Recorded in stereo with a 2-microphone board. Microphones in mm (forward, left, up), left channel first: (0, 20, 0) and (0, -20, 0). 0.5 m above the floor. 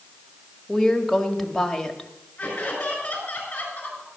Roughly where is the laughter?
Left.